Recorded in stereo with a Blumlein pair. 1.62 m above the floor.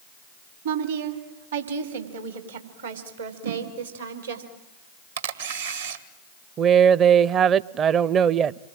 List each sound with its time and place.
0.7 s a woman speaking: 65° right, 3.5 m; by 4.4 s 80° right, 5 m
3.4 s a whoosh: 65° right, 9 m
5.2 s a camera shutter: 70° right, 2 m
6.6 s a woman speaking: 30° right, 0.6 m